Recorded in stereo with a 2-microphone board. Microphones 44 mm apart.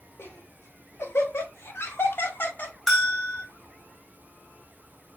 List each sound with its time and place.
0.2 s laughter: 85° left, 2.5 m; by 2.8 s 45° left (ahead or behind), 1.9 m
2.9 s a bell: 10° left (ahead or behind), 1.8 m